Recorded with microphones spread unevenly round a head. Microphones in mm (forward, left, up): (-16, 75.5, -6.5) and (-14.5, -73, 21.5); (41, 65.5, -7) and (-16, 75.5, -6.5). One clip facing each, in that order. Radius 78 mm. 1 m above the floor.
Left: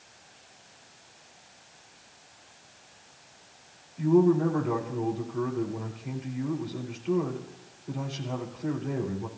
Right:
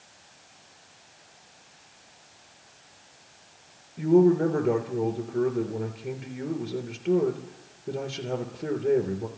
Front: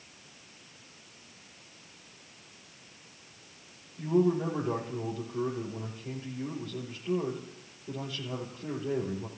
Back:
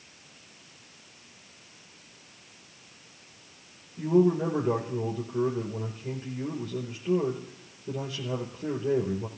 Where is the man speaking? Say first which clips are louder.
Right 2 dB, back 4 dB; 115° right, 3 m.